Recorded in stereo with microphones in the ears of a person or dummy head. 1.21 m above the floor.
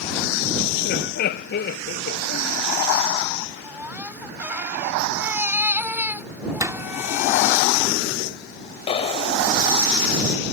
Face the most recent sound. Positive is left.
turn(degrees=25)  # may be behind; listen again after turning